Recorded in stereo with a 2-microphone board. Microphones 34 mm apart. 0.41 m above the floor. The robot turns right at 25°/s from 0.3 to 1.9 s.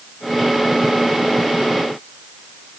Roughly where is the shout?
No shout in this recording.